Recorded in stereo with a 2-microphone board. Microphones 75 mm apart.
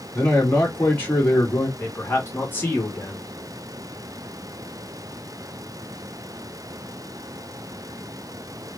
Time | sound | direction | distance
0.1 | a man speaking | 25° left (ahead or behind) | 2 m
1.8 | a man speaking | 30° left (ahead or behind) | 1.6 m